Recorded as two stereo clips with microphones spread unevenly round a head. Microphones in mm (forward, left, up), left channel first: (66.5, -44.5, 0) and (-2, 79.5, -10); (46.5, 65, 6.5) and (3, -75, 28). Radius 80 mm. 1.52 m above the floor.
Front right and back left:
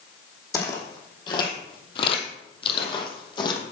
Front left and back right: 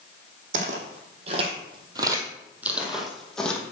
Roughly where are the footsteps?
Behind right.